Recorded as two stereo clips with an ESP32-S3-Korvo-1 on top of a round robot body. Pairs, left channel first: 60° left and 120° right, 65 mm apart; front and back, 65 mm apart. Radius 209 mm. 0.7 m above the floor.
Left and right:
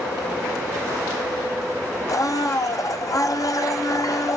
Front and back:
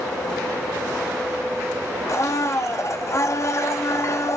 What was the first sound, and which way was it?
A blender, 40° left.